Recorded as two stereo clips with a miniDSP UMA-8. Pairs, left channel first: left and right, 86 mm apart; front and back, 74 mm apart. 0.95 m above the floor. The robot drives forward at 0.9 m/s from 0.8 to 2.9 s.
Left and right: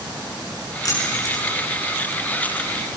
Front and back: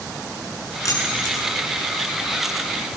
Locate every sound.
0.8 s keys jangling: 45° left, 7.5 m